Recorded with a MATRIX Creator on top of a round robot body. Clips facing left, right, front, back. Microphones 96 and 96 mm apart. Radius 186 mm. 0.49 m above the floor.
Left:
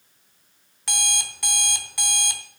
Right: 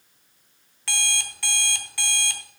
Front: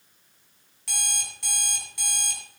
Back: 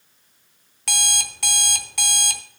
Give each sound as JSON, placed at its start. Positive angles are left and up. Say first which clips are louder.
{"t": 0.9, "sound": "an alarm clock", "louder": "left 1 dB, back 8 dB", "azimuth_deg": 165, "distance_m": 1.1}